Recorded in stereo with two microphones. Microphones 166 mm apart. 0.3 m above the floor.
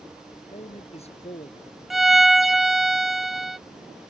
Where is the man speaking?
40° left (ahead or behind).